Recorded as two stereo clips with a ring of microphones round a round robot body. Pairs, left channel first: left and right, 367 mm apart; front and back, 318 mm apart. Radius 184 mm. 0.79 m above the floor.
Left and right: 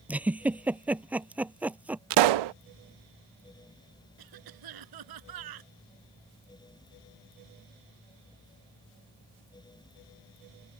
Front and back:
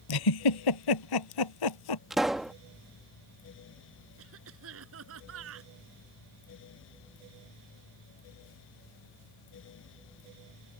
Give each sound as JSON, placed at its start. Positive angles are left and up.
{"t": 0.1, "sound": "a giggle", "azimuth_deg": -5}
{"t": 2.1, "sound": "a pop", "azimuth_deg": -90}
{"t": 4.2, "sound": "a cough", "azimuth_deg": -125}